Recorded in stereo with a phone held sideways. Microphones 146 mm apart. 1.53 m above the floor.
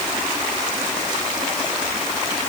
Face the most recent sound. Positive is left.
No sound to turn to.